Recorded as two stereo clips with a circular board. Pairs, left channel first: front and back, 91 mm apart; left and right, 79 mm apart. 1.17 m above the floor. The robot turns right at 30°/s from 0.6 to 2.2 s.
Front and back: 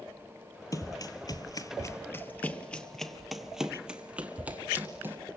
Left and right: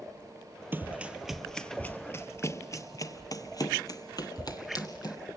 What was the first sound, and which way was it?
Running footsteps, 35° right.